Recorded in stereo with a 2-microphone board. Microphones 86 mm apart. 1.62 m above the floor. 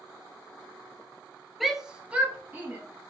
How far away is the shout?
About 1.3 m.